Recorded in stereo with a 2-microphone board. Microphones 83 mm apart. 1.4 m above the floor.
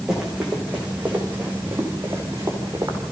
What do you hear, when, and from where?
0.1 s running footsteps: 5° right (ahead or behind), 6.5 m; by 3.0 s 35° right (ahead or behind), 7.5 m